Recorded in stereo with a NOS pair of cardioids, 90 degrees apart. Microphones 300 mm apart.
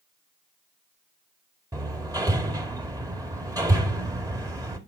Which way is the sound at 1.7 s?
10° right.